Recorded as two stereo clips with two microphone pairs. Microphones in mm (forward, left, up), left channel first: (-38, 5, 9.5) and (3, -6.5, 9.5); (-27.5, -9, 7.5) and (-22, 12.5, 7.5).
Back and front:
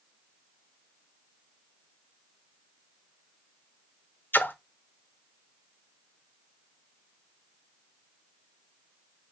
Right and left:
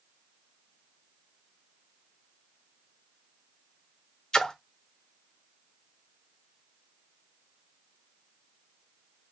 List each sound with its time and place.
4.3 s a splash: 160° right, 0.6 m